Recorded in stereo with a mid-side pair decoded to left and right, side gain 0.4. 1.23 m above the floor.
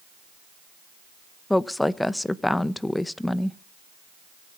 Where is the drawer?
I don't hear a drawer.